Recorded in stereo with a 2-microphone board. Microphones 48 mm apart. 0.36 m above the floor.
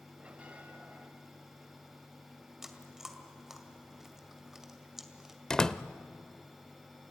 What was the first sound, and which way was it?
A bell, 25° right (ahead or behind).